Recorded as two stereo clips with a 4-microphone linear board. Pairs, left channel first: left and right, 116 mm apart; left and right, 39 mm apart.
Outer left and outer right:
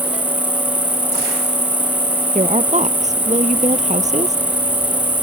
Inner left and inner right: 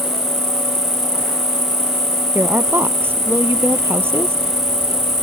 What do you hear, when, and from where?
0.0 s an insect: 15° left (ahead or behind)
2.4 s a woman speaking: 85° right